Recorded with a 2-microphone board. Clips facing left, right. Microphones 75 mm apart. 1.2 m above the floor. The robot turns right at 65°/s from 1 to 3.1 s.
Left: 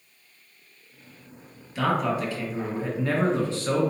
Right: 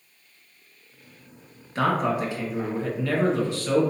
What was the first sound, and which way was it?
A man speaking, 55° right.